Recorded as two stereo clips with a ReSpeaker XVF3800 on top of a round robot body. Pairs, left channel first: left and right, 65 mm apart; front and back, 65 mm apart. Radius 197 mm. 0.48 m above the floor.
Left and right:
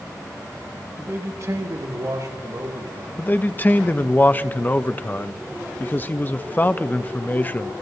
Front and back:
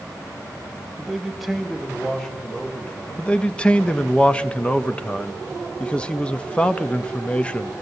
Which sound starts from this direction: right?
A man speaking, at 1.0 s.